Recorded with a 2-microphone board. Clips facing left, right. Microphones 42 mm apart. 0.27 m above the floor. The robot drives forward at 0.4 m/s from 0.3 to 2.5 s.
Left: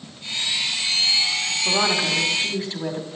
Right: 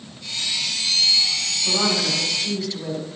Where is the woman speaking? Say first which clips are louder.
Left 1 dB; 30° left (ahead or behind), 2 m; by 3.1 s 35° left (ahead or behind), 2.0 m.